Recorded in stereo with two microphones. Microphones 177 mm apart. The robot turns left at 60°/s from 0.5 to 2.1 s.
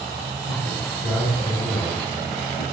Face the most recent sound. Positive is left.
turn(degrees=115)